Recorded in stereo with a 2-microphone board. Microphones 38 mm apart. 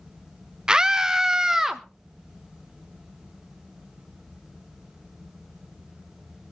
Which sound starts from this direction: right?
A scream, at 0.7 s.